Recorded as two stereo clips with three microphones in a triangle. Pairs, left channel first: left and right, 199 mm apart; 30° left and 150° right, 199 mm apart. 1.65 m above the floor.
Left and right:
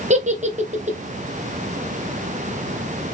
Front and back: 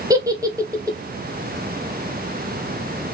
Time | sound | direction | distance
0.1 | a giggle | 85° right | 0.6 m